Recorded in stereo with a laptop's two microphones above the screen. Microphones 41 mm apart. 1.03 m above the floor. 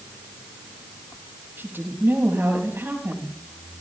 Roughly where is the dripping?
No dripping in this recording.